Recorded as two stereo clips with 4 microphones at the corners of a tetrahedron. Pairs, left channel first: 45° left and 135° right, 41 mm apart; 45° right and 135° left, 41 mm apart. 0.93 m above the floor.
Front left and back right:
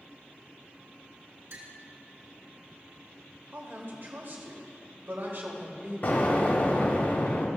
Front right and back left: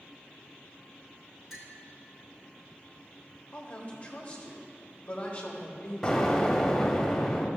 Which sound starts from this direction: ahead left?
An explosion, at 6.0 s.